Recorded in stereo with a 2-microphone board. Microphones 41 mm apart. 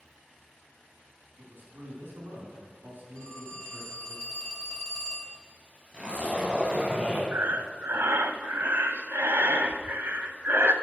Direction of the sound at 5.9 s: 20° right (ahead or behind).